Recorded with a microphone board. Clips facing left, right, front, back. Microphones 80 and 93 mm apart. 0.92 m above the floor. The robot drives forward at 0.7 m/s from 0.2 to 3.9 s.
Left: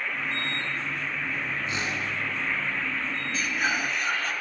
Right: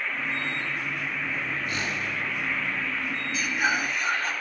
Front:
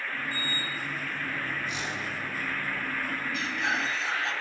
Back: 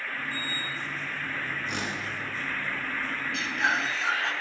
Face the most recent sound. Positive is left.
turn(degrees=-175)